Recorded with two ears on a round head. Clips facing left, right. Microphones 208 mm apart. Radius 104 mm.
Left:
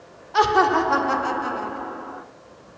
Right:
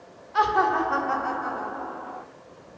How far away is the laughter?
About 1.8 m.